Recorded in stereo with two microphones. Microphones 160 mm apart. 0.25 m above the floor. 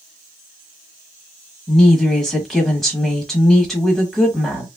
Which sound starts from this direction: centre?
A woman speaking, at 1.7 s.